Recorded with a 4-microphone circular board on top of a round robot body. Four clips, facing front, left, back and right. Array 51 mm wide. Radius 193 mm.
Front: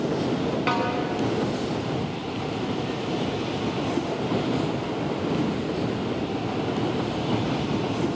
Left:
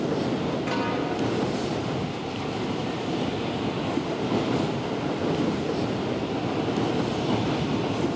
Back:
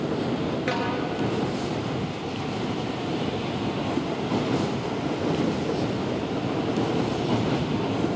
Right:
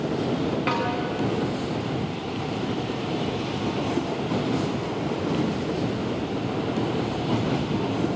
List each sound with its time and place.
0.7 s a snare drum: 35° right, 4 m